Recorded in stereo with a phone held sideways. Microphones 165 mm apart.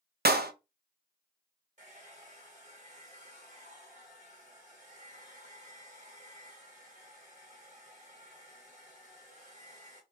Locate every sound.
0.2 s a clap: 65° right (ahead or behind), 0.6 m
1.8 s a hair dryer: 45° right (ahead or behind), 1.6 m